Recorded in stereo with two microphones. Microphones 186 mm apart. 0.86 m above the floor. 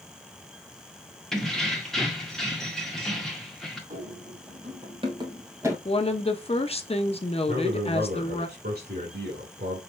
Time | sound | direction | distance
1.3 | keys jangling | centre (ahead or behind) | 1.4 m
3.9 | running footsteps | 50° right (ahead or behind) | 2 m
5.8 | a woman speaking | 35° left (ahead or behind) | 0.8 m
7.5 | a man speaking | 55° right (ahead or behind) | 2.5 m